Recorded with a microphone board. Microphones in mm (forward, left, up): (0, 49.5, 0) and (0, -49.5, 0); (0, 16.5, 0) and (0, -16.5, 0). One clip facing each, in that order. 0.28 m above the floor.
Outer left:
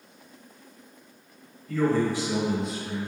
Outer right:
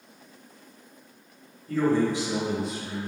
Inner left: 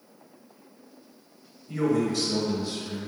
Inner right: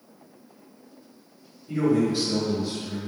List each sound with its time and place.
1.7 s a man speaking: 35° right (ahead or behind), 1.1 m; by 3.1 s 15° left (ahead or behind), 0.9 m